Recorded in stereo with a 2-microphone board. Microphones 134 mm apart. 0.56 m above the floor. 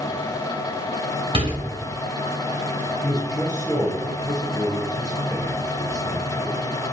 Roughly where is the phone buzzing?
I don't hear a phone buzzing.